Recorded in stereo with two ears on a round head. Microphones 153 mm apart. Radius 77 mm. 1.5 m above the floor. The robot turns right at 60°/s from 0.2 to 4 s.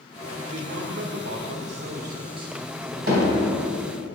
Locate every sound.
0.5 s a man speaking: 145° right, 0.9 m; by 3.0 s 5° left, 0.9 m
3.1 s hammering: 55° right (ahead or behind), 2.5 m; by 3.5 s 65° right (ahead or behind), 2.5 m